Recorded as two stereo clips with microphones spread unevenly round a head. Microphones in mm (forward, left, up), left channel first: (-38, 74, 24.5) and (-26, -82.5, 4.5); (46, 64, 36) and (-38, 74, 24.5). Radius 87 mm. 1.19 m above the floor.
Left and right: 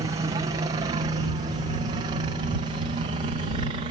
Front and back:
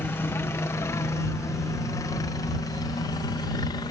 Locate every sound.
0.0 s a helicopter: 55° right; by 3.9 s 40° right